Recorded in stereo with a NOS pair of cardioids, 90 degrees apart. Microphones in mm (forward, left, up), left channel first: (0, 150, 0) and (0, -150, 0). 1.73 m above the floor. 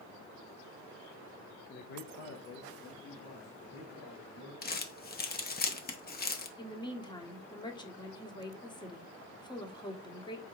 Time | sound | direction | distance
1.7 | a man speaking | 25° left | 0.5 m
4.6 | crumpling | 30° left | 0.9 m
6.6 | a woman speaking | 15° left | 1.1 m